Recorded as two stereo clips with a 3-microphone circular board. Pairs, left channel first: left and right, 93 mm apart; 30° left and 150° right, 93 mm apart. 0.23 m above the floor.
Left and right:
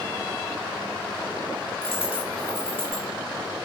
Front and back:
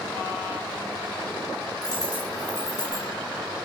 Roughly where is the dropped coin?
Left.